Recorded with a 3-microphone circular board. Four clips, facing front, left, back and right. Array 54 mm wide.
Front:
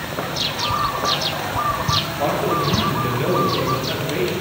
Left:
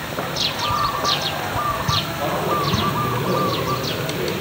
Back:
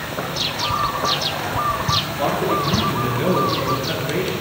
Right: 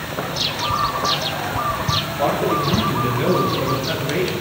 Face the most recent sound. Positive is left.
turn(degrees=-125)